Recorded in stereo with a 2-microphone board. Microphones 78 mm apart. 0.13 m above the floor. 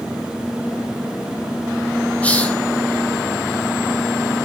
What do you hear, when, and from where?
2.2 s a hiss: 20° left (ahead or behind), 0.9 m